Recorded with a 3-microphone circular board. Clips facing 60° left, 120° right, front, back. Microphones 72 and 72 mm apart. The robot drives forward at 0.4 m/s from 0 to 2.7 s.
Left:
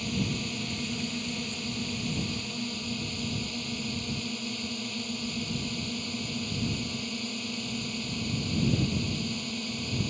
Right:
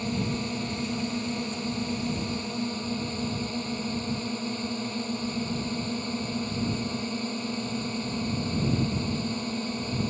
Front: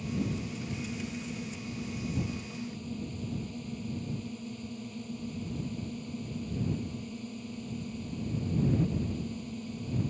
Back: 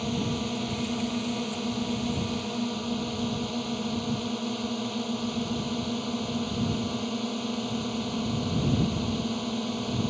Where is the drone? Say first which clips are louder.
Right 2 dB, back 5 dB; straight behind.